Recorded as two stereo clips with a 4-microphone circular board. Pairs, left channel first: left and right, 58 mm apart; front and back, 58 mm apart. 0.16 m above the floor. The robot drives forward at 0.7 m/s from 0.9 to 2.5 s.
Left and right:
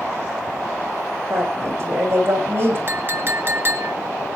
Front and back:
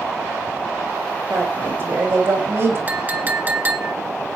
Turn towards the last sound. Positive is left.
turn(degrees=-130)